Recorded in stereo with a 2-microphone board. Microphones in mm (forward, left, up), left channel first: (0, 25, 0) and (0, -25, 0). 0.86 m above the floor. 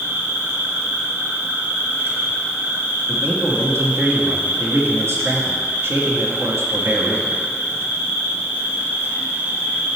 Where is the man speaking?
60° right (ahead or behind), 1.4 m.